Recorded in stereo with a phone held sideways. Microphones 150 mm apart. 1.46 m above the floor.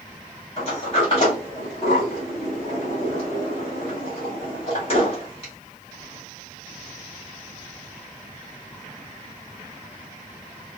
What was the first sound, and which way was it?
A sliding door, 40° left (ahead or behind).